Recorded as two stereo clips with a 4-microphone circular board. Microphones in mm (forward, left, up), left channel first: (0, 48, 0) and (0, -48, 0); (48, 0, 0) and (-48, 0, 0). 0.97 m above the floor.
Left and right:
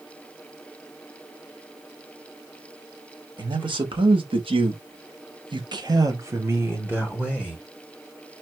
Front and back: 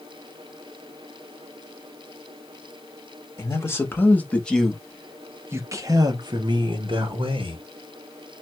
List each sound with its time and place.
3.4 s a man speaking: 60° right, 1.4 m; by 7.6 s 170° right, 1.6 m